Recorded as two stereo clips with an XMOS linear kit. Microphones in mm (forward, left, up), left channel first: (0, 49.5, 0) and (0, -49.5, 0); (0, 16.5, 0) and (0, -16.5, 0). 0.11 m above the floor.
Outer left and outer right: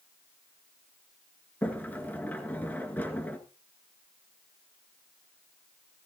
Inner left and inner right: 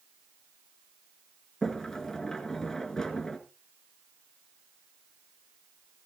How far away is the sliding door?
About 1.5 m.